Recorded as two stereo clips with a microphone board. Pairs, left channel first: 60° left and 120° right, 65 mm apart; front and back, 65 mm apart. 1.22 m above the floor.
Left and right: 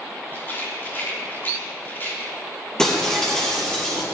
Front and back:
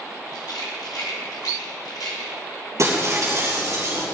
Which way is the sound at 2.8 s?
140° left.